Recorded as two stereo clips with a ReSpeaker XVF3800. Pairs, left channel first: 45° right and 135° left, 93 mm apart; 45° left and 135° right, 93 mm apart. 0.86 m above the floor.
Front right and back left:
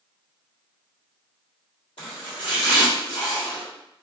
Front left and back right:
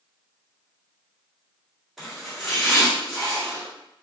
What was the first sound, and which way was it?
Chopping, 45° right.